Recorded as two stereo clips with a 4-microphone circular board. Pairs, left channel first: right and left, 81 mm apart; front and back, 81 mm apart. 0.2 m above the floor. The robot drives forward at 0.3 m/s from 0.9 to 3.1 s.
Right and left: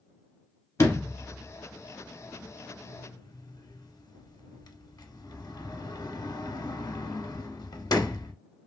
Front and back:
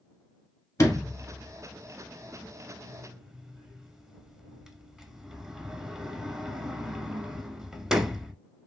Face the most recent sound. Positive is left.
turn(degrees=-100)